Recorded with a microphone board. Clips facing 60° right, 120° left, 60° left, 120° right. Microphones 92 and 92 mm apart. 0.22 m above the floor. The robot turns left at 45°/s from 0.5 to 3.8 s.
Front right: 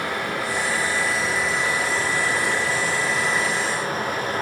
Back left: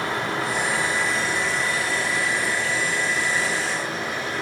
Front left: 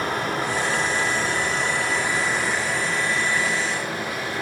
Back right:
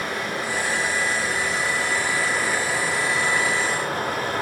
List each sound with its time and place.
0.0 s running water: 60° left, 1.6 m; by 4.4 s 85° right, 1.6 m